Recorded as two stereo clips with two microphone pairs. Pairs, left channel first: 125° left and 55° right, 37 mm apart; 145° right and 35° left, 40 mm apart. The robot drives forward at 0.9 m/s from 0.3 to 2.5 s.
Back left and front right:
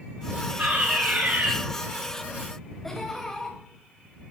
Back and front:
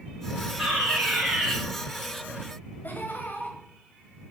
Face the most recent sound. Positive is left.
turn(degrees=-155)